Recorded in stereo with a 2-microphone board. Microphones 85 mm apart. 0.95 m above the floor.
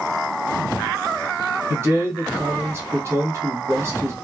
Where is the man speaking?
30° right (ahead or behind), 1.0 m.